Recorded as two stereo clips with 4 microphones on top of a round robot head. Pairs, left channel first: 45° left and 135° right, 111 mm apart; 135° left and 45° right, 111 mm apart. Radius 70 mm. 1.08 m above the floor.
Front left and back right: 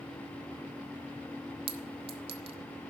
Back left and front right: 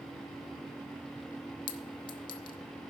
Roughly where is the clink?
Behind.